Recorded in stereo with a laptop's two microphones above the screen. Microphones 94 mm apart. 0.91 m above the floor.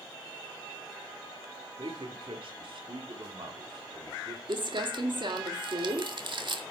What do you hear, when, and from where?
1.8 s a man speaking: 70° right (ahead or behind), 2.5 m; by 4.4 s 60° right (ahead or behind), 3.5 m
4.5 s crumpling: 60° right (ahead or behind), 1.9 m